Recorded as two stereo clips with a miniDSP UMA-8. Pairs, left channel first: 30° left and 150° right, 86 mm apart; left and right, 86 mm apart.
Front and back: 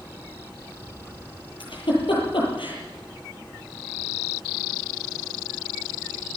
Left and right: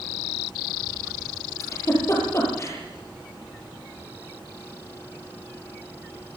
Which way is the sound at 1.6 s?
35° left.